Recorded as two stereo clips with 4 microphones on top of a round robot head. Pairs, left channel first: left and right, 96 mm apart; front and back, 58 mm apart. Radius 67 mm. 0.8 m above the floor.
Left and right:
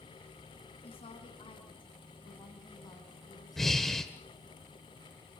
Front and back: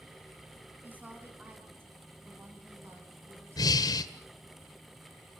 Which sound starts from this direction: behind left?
A woman speaking, at 0.8 s.